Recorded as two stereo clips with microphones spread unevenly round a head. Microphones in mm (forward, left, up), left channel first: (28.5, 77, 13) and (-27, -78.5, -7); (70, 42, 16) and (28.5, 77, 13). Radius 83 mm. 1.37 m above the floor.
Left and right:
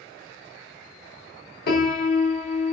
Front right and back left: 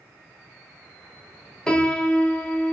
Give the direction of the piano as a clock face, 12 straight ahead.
11 o'clock.